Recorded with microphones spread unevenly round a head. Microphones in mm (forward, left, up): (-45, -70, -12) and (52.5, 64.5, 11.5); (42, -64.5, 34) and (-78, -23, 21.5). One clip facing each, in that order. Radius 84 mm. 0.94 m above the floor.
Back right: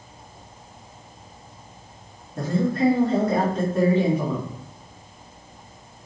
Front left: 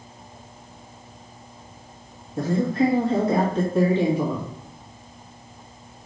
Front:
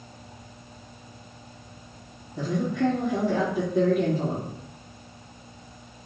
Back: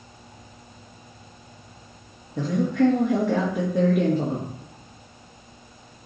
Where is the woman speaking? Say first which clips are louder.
Front left 1 dB, back 4 dB; 140° left, 2 m.